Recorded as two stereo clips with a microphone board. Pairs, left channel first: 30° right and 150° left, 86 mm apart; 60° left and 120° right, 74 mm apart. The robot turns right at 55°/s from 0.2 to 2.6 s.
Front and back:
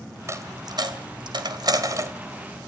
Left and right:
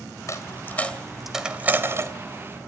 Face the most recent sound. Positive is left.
turn(degrees=-135)